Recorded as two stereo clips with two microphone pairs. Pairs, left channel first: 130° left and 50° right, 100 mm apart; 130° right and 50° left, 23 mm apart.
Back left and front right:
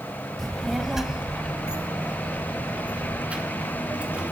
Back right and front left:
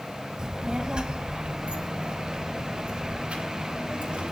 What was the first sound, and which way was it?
A child speaking, 45° left.